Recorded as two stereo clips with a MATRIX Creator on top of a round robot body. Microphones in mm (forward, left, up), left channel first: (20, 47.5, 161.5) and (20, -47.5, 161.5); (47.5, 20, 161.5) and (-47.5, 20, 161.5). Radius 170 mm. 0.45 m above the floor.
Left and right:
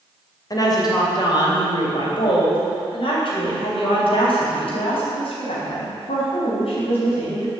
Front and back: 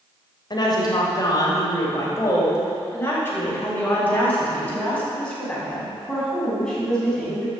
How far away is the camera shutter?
No camera shutter in this recording.